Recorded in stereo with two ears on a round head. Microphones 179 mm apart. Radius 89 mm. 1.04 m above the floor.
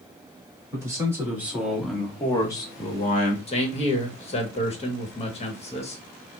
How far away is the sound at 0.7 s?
About 2.0 m.